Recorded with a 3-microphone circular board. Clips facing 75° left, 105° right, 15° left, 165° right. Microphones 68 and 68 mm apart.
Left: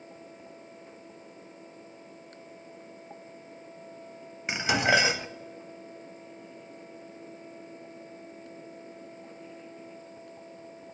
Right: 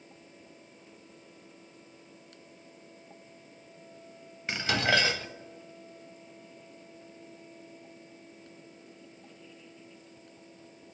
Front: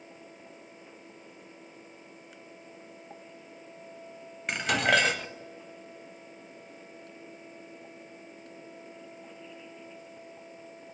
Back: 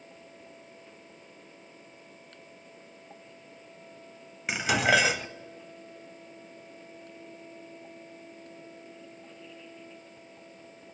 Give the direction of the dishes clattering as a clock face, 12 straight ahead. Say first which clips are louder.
Left 3 dB, back 1 dB; 8 o'clock.